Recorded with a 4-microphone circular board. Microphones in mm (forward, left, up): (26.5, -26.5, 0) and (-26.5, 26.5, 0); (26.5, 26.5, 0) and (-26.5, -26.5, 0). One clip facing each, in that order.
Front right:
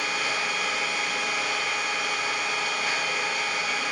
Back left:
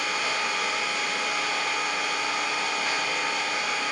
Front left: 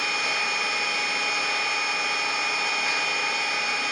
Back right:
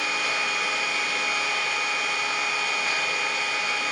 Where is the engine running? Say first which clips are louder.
Even, even; 125° left, 0.9 m.